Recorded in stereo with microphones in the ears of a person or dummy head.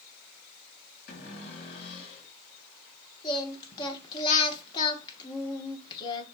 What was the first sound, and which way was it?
A cupboard door, 60° left (ahead or behind).